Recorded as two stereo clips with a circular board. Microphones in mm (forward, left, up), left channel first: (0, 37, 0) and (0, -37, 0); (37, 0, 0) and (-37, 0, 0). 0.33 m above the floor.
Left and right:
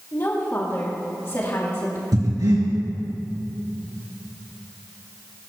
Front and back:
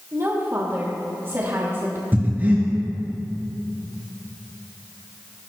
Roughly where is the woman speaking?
Behind left.